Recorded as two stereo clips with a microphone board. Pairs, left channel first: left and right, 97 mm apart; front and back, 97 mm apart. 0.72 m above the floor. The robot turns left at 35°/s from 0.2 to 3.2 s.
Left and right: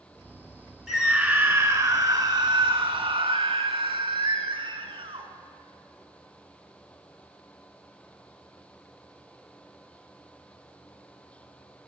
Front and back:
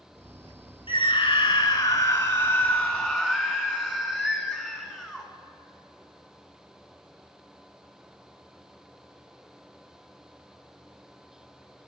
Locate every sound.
0.9 s a scream: 10° right, 1.5 m; by 5.3 s 95° right, 1.5 m